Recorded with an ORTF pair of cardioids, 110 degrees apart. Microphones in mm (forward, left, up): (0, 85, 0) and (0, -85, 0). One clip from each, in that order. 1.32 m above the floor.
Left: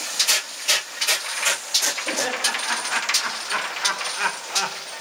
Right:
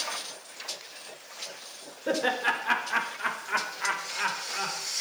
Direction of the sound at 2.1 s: 20° right.